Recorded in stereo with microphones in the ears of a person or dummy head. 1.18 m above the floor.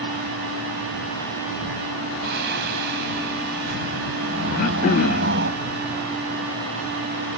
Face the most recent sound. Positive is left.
turn(degrees=45)  # may be behind; listen again after turning